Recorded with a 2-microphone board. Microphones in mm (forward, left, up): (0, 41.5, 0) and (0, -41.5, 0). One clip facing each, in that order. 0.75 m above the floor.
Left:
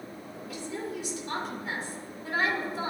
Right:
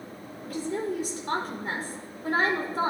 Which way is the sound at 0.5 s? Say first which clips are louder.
Right 6 dB; 45° right (ahead or behind).